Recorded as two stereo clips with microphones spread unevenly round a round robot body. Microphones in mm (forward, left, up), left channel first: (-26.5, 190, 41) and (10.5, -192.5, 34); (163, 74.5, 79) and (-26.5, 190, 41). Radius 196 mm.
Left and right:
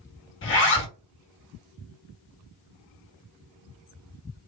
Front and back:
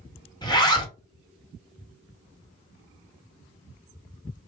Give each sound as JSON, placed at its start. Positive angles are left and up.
{"t": 0.4, "sound": "a zipper", "azimuth_deg": 45, "distance_m": 1.4}